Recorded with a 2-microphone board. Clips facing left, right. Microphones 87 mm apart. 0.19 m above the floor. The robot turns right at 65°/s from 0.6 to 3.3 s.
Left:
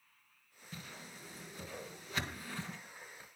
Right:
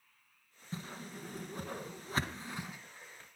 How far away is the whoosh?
About 2 m.